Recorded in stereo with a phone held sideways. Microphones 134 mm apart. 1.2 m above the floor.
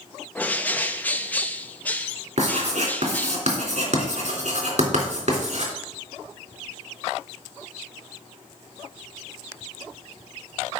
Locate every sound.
0.3 s a bird: 10° left (ahead or behind), 0.7 m
2.4 s writing: 60° right (ahead or behind), 3.5 m